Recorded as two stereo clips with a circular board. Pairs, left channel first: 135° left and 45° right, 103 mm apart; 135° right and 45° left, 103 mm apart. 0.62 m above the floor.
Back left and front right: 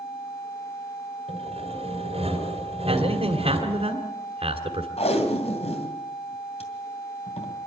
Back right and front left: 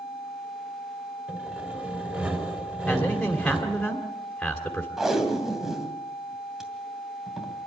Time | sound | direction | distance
1.3 | sawing | 30° right | 4.5 m
2.9 | a man speaking | 50° right | 2.5 m
5.0 | tape being pulled | 130° left | 2.5 m